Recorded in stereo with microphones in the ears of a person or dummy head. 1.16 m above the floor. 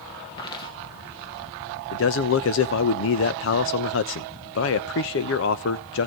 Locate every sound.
0.4 s footsteps: 25° left (ahead or behind), 1.8 m
1.9 s a man speaking: 60° left (ahead or behind), 1.0 m